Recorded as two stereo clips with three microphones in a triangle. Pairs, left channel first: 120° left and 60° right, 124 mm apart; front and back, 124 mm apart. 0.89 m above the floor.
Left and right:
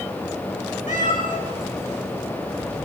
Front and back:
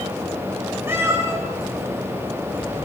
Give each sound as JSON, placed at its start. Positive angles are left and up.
{"t": 0.9, "sound": "a cat meowing", "azimuth_deg": 110, "distance_m": 5.5}